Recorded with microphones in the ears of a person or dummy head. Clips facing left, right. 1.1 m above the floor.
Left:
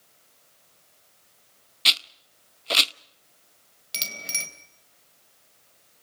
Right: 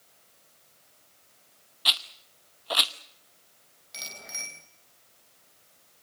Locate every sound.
1.9 s a rattle: 30° left (ahead or behind), 0.6 m
3.9 s a bicycle bell: 45° left (ahead or behind), 4 m